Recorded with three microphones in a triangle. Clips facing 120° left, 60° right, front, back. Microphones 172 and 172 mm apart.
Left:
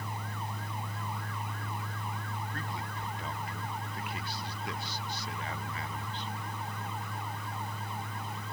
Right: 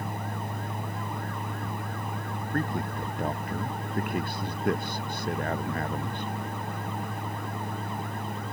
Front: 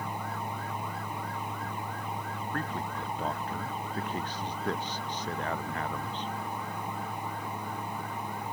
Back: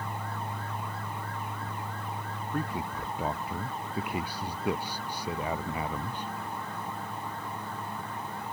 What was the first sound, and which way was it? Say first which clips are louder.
A man speaking: right 10 dB, back 3 dB; 100° right.